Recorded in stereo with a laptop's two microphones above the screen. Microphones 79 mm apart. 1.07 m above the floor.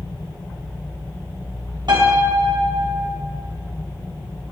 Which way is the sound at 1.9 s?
65° right (ahead or behind).